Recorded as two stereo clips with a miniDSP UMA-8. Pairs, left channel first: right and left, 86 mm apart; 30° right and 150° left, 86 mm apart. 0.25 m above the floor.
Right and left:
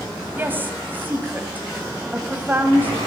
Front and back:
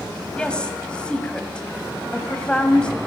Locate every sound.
0.4 s a woman speaking: 40° left, 1.7 m